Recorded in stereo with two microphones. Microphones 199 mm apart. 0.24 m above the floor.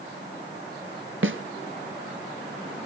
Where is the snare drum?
85° right, 1.0 m.